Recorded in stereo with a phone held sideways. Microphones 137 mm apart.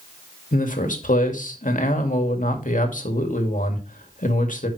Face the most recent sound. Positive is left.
turn(degrees=75)  # may be behind; listen again after turning